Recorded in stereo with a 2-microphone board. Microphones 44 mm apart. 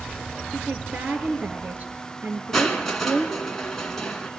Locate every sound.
0.5 s a woman speaking: 35° right (ahead or behind), 3 m
2.5 s crushing: 10° left (ahead or behind), 2.5 m